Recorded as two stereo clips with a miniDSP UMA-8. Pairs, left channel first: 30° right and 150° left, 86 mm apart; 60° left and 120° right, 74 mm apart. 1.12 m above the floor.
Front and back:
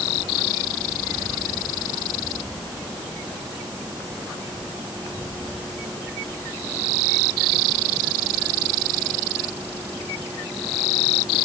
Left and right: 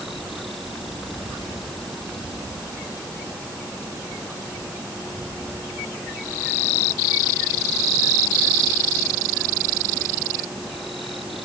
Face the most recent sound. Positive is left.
No sound to turn to.